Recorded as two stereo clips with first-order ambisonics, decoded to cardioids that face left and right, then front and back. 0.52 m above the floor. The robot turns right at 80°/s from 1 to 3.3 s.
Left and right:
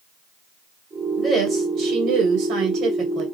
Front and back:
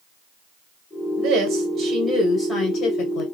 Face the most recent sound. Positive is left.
turn(degrees=-5)